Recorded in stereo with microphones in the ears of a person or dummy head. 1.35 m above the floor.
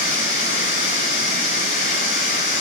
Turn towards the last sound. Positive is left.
turn(degrees=60)  # may be behind; listen again after turning